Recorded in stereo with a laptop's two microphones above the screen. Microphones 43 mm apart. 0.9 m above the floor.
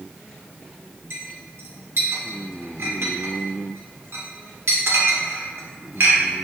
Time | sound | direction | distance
1.1 | a clink | 65° right (ahead or behind) | 1.7 m